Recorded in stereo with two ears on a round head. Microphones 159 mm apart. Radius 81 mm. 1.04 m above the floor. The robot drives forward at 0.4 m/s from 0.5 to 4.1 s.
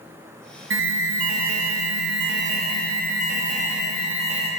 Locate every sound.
0.7 s an alarm: 65° right (ahead or behind), 0.8 m; by 4.5 s 35° right (ahead or behind), 1.3 m